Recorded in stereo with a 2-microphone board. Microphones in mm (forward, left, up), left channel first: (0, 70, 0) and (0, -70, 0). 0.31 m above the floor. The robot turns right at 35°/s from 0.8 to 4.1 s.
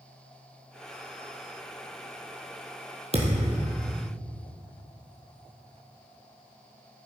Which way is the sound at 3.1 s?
50° right (ahead or behind).